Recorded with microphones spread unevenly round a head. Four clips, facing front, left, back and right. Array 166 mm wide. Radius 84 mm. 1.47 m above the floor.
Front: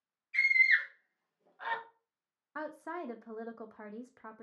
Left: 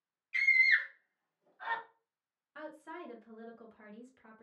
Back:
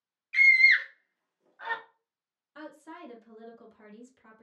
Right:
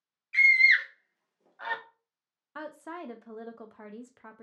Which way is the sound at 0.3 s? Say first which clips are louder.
Right 6 dB, back 6 dB; 160° right.